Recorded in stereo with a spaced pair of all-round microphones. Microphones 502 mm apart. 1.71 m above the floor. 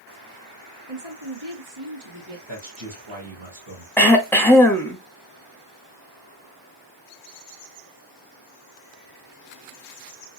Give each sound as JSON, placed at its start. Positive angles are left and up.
{"t": 0.9, "sound": "a woman speaking", "side_deg": -70, "distance_m": 2.0}
{"t": 2.5, "sound": "a man speaking", "side_deg": -65, "distance_m": 1.6}
{"t": 4.0, "sound": "throat clearing", "side_deg": 5, "distance_m": 0.7}